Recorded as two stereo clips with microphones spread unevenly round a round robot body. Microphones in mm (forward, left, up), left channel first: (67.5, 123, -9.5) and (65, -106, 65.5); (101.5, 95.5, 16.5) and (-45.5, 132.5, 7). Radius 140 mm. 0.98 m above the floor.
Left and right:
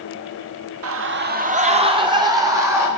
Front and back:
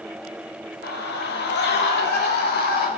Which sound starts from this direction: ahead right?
A scream, at 0.8 s.